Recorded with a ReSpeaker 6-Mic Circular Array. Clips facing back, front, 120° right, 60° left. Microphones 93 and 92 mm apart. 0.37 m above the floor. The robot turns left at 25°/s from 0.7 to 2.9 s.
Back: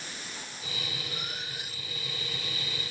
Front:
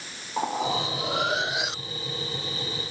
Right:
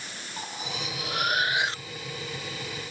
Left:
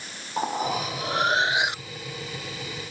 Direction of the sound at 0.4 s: 10° left.